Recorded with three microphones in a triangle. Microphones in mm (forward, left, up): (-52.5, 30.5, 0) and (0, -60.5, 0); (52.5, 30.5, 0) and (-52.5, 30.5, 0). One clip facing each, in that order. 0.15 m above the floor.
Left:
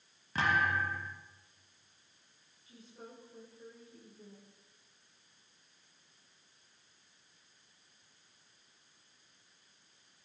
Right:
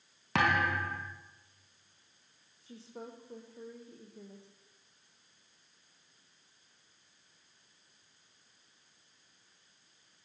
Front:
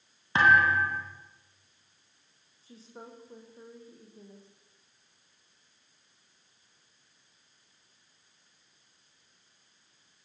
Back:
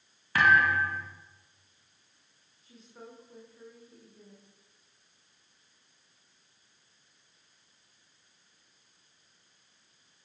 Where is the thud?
65° right, 7 m.